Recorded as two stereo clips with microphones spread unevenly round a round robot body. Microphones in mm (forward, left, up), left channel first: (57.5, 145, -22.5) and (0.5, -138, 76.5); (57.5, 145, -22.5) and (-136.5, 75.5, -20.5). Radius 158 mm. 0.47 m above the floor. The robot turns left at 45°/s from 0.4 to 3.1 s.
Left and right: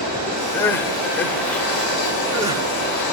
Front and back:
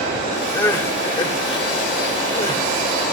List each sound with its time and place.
0.5 s crying: 90° left, 1.0 m; by 3.1 s 25° right, 1.0 m